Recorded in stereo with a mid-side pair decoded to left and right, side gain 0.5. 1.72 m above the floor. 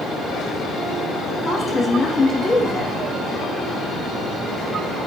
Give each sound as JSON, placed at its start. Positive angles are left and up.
{"t": 1.4, "sound": "a woman speaking", "azimuth_deg": 15, "distance_m": 1.2}